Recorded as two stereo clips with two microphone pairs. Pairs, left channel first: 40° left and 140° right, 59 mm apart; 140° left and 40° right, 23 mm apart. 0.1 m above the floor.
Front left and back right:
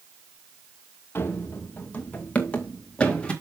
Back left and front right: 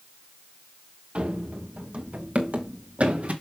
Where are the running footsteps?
10° right, 1.4 m; by 3.3 s 35° right, 2.5 m.